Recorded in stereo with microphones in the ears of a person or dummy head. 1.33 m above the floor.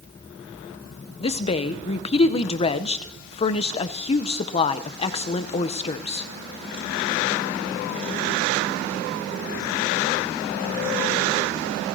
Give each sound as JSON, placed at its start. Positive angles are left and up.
{"t": 1.2, "sound": "a woman speaking", "side_deg": 35, "distance_m": 0.6}